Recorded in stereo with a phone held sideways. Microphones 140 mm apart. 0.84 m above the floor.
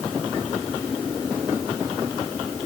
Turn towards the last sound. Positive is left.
No sound to turn to.